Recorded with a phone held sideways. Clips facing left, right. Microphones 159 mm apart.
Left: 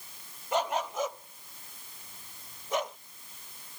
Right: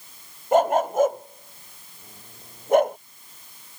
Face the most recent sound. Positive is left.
turn(degrees=-55)  # may be behind; listen again after turning